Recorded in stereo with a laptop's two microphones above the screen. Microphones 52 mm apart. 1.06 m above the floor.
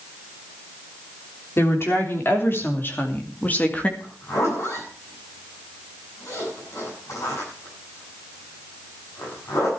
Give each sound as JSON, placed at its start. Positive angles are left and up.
{"t": 1.6, "sound": "a woman speaking", "side_deg": 50, "distance_m": 3.5}
{"t": 4.0, "sound": "a zipper", "side_deg": 60, "distance_m": 9.0}